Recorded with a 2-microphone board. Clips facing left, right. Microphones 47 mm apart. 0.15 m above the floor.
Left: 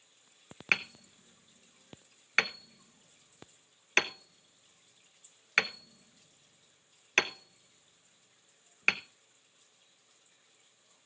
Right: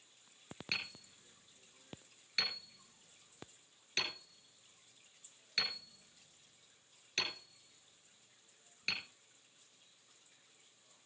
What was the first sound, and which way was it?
Hammering, 65° left (ahead or behind).